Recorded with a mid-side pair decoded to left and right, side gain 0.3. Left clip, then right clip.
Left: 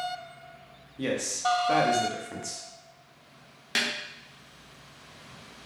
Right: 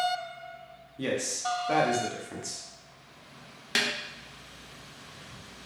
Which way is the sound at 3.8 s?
20° right.